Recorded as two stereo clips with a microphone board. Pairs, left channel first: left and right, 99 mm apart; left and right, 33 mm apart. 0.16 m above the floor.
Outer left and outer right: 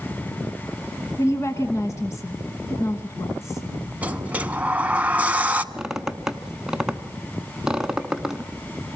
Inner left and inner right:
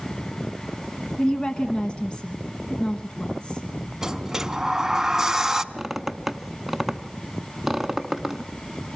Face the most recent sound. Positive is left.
turn(degrees=-5)  # may be behind; listen again after turning